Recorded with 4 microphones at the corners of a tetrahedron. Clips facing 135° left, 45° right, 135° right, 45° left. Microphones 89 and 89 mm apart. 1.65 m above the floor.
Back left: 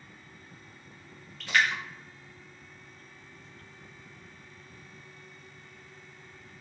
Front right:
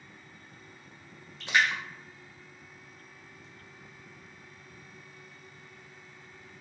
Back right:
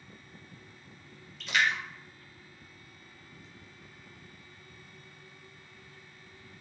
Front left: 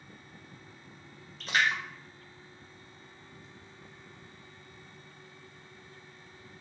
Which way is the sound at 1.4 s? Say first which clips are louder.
Even, even; 15° left.